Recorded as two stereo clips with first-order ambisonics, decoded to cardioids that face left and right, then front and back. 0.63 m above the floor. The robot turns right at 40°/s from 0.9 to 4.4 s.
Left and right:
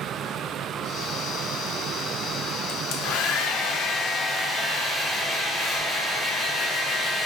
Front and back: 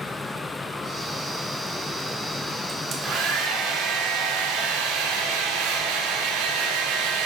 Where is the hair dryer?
110° left, 0.6 m; by 7.3 s straight behind, 0.6 m.